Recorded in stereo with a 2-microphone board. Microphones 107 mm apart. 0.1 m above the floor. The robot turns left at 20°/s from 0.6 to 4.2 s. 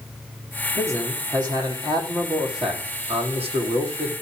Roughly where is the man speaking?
Ahead right.